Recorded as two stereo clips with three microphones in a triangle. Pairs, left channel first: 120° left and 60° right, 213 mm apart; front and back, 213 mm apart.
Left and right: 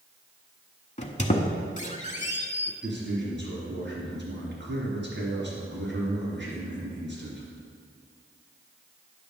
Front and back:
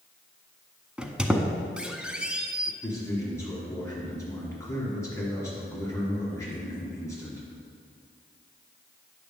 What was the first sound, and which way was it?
A squeak, 95° left.